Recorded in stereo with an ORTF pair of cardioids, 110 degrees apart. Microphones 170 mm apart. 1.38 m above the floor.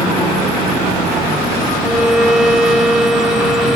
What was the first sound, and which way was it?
A violin, 5° right.